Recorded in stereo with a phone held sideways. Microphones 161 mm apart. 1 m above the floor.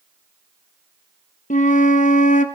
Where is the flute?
55° left (ahead or behind), 1.0 m.